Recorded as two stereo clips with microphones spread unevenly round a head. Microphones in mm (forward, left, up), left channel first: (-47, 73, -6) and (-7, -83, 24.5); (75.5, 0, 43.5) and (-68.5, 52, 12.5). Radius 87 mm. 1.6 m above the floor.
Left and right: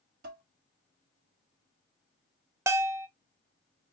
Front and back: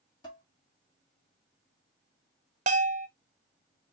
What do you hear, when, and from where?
0.2 s dishes clattering: 80° right, 1.7 m
2.7 s a bell: 145° right, 0.5 m